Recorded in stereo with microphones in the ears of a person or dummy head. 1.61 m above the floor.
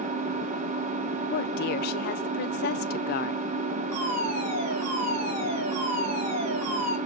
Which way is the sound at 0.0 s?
40° right (ahead or behind).